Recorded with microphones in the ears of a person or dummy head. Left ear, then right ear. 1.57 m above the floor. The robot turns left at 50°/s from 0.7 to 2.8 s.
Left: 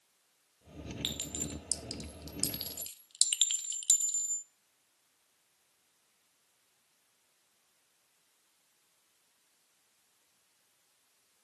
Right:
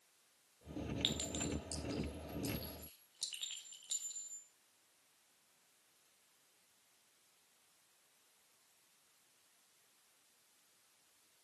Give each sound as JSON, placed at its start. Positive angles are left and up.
{"t": 1.0, "sound": "a clink", "side_deg": 5, "distance_m": 0.9}